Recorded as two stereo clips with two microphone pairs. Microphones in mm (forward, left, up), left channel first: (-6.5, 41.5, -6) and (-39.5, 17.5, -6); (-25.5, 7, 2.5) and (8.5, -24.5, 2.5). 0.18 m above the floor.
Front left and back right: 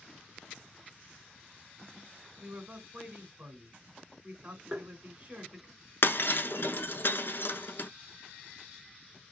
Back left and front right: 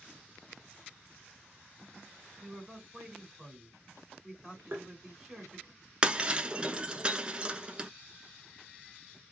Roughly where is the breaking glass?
Ahead.